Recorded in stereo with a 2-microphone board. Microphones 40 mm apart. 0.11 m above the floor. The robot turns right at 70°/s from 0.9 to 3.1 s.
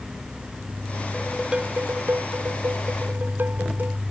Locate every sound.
1.1 s dishes clattering: 175° left; by 4.0 s 50° right